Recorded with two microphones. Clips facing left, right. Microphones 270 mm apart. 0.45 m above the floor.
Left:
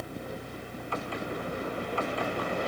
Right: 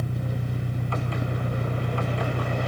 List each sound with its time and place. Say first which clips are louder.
0.0 s an engine running: right 6 dB; 80° right